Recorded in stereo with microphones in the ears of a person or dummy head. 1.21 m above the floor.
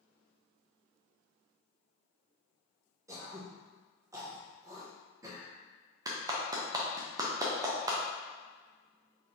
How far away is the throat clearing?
About 0.7 m.